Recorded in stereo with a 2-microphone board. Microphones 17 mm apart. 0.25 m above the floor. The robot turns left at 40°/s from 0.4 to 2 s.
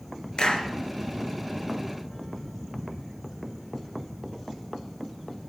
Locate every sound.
0.4 s a clap: 60° left (ahead or behind), 2.5 m; by 0.7 s 70° left (ahead or behind), 2.5 m